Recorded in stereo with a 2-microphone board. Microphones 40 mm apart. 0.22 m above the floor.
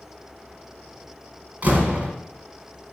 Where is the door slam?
35° right (ahead or behind), 1.2 m.